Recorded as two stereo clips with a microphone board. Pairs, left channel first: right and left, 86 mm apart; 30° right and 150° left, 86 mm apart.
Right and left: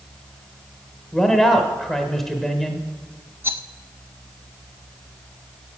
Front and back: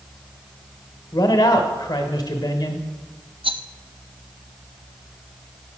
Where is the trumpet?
No trumpet in this recording.